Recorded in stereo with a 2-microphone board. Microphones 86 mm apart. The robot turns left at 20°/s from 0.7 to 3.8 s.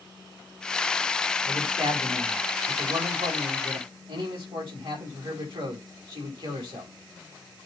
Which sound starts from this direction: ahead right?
A man speaking, at 1.4 s.